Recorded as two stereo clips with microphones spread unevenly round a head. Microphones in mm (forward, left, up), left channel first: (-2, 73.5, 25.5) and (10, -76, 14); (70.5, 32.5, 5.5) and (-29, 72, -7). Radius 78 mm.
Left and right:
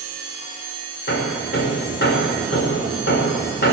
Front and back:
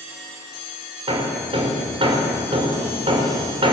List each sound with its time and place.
1.1 s hammering: 120° left, 5 m